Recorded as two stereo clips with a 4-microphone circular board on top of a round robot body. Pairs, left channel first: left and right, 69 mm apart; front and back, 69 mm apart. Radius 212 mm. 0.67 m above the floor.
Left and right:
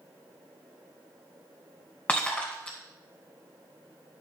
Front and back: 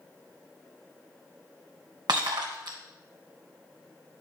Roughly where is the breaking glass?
Behind.